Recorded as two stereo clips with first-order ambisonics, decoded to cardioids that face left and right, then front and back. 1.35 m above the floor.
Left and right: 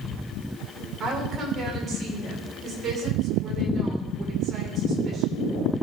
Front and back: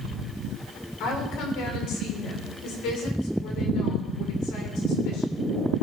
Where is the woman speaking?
30° right, 4 m.